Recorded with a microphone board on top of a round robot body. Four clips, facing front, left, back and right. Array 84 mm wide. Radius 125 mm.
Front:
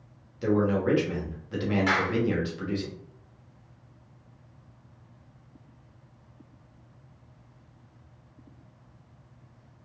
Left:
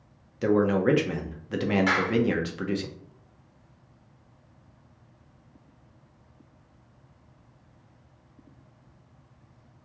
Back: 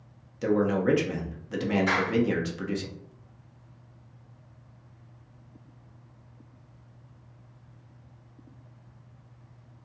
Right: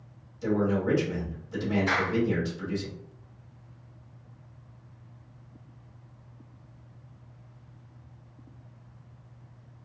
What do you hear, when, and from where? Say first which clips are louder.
0.4 s a man speaking: left 4 dB, even; 100° left, 1.0 m
1.9 s a clap: left 2 dB, even; 60° left, 1.7 m